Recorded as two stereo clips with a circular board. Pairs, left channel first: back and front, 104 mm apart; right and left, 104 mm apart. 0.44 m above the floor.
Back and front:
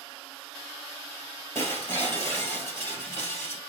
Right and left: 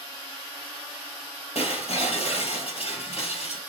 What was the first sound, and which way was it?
Breaking glass, 115° right.